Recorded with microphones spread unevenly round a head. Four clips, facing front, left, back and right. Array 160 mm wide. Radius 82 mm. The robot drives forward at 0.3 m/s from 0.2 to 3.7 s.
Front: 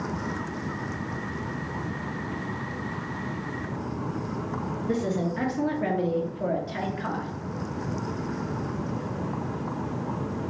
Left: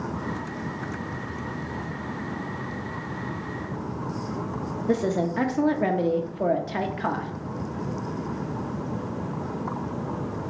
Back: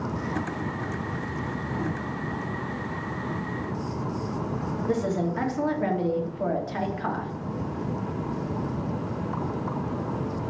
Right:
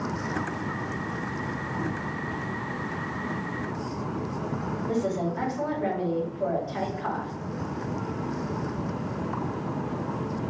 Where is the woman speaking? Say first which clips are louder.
Left 4 dB, back 1 dB; 85° left, 1.0 m.